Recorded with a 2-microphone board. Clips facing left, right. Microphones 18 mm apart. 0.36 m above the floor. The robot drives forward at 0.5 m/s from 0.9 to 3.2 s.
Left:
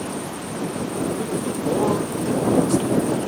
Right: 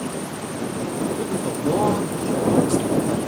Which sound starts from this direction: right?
A man speaking, at 1.2 s.